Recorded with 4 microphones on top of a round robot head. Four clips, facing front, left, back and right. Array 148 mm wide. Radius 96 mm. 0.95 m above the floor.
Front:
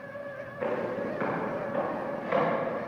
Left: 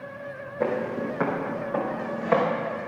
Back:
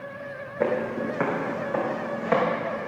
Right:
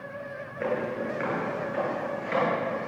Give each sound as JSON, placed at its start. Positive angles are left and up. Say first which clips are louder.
{"t": 0.6, "sound": "footsteps", "louder": "left 3 dB, back 5 dB", "azimuth_deg": 150, "distance_m": 2.0}